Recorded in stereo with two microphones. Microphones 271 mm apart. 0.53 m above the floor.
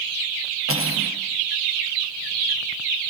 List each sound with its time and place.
0.7 s cutlery clinking: 55° right (ahead or behind), 7.5 m